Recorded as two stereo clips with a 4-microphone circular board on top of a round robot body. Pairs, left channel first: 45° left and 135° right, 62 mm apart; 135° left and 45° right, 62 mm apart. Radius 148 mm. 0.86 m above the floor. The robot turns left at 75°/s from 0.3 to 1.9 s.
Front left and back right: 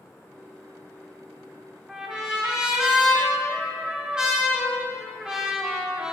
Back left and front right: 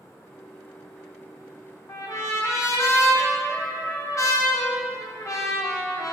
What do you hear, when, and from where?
1.9 s a trumpet: 150° left, 1.7 m; by 6.1 s 145° left, 1.7 m